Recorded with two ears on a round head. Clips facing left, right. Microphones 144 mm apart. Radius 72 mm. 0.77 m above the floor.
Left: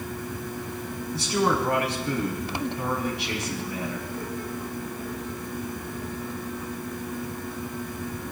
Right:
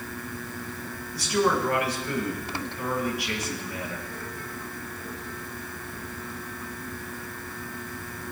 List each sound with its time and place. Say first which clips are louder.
1.1 s a man speaking: even; 25° left (ahead or behind), 5.5 m